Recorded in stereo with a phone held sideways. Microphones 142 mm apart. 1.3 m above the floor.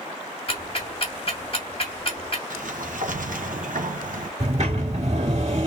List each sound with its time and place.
0.5 s ticking: 45° left (ahead or behind), 2.5 m
2.5 s a sliding door: 80° right, 0.9 m
4.4 s a sliding door: 60° right (ahead or behind), 2.0 m